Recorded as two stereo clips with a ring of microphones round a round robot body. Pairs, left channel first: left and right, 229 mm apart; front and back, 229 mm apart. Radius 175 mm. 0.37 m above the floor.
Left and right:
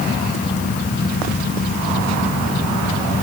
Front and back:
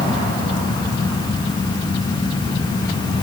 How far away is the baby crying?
No baby crying in this recording.